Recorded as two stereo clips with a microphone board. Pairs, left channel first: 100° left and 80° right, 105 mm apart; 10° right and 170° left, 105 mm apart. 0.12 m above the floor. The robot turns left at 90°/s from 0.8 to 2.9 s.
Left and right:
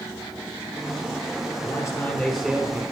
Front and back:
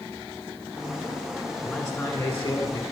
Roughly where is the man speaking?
Left.